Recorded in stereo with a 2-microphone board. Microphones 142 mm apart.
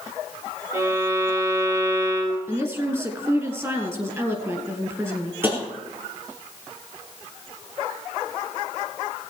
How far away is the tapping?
About 3.5 m.